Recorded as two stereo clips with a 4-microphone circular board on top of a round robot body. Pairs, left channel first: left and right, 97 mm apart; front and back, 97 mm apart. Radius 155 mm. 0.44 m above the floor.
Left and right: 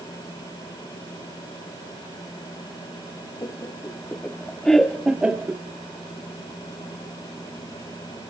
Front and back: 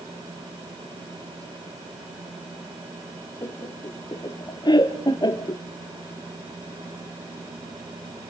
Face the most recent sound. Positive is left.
turn(degrees=-30)